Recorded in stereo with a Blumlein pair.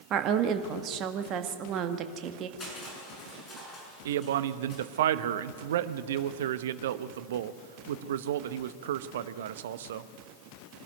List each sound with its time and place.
0.1 s a woman speaking: 35° right, 1.6 m
2.6 s crushing: 20° left, 7 m
4.0 s a man speaking: 60° right, 0.9 m